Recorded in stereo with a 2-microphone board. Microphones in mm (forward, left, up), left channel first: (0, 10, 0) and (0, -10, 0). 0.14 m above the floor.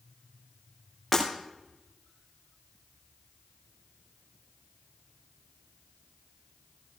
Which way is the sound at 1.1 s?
10° left (ahead or behind).